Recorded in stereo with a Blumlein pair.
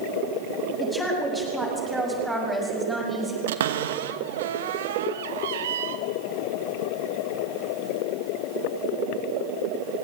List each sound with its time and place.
0.8 s a woman speaking: 5° left, 7.5 m; by 3.4 s 10° right, 6.5 m
3.5 s a cupboard door: 60° right, 1.2 m